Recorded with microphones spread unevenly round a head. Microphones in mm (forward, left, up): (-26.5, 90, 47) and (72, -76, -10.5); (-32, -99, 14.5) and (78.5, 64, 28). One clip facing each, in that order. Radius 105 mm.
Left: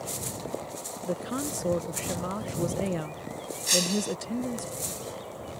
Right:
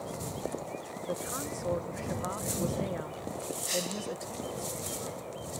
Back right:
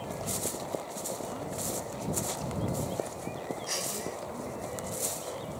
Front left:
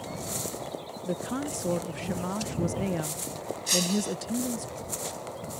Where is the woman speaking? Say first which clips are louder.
Left 6 dB, front left 9 dB; 75° left.